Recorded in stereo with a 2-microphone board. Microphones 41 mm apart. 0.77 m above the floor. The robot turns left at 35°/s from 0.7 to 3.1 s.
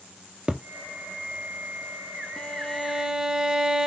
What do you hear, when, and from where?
0.5 s a thud: 25° right (ahead or behind), 1.9 m
2.4 s a violin: 15° left (ahead or behind), 2 m; by 3.9 s 10° right (ahead or behind), 2 m